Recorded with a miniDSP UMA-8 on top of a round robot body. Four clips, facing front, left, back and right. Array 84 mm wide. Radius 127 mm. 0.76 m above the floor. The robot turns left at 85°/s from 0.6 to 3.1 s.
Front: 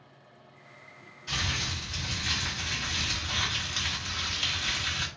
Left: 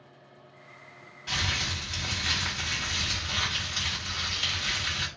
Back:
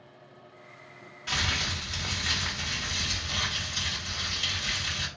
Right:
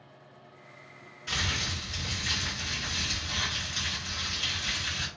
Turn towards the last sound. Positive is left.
turn(degrees=10)